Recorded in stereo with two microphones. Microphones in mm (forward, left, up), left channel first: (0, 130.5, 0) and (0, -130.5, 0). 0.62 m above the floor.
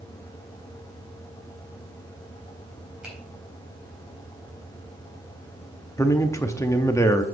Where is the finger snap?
5° right (ahead or behind), 3.5 m.